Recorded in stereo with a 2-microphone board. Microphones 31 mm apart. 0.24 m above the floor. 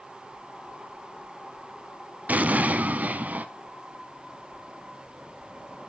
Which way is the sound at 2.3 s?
50° right (ahead or behind).